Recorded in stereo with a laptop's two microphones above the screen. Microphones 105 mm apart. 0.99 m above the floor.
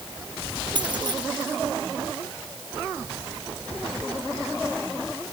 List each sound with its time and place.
0.8 s keys jangling: 45° right (ahead or behind)